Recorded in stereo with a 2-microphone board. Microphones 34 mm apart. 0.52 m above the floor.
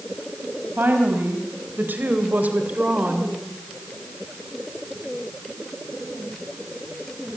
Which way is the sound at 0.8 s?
75° right (ahead or behind).